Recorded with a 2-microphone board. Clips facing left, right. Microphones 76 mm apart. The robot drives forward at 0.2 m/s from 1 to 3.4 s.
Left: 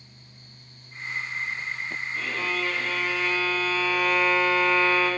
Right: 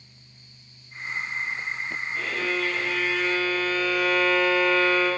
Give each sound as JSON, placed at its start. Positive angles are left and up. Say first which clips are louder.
{"t": 2.1, "sound": "a violin", "louder": "right 2 dB", "side_deg": -20, "distance_m": 1.4}